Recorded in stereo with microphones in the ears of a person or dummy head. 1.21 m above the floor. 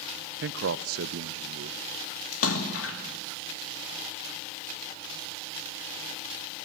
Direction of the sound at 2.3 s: 80° left.